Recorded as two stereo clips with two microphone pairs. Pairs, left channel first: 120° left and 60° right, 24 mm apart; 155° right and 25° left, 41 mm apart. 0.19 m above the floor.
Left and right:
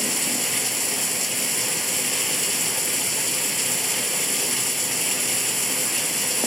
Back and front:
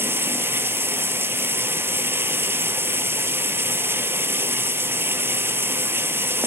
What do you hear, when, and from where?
0.0 s running water: 35° left, 0.9 m